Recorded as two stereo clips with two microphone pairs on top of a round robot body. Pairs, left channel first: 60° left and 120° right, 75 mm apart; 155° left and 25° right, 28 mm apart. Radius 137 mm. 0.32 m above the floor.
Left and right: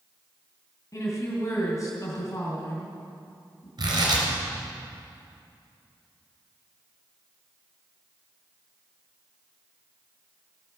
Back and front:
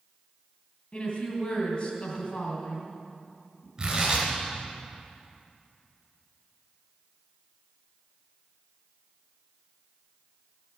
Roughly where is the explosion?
No explosion in this recording.